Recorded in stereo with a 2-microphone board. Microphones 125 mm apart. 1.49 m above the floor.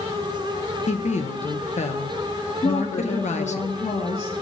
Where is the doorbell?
I don't hear a doorbell.